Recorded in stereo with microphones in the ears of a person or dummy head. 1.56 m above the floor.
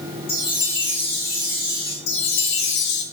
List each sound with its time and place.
0.3 s a chime: 20° left (ahead or behind), 1.0 m
2.1 s a chime: 60° left (ahead or behind), 1.3 m